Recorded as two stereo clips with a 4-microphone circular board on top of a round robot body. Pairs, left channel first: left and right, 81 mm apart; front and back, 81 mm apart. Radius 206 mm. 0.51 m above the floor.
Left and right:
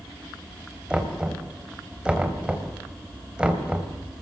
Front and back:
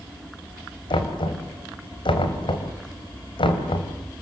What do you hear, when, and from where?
0.9 s knocking: 10° right, 3 m